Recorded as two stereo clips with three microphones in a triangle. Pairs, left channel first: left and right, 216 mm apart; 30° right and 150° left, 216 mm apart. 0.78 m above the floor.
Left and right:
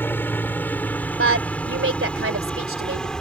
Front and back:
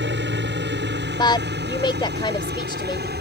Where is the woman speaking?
100° right.